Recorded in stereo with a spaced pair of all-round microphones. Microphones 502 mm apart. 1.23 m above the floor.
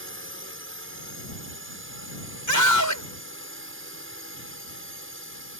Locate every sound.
0.0 s a drone: 25° right (ahead or behind)
2.5 s a scream: 35° left (ahead or behind)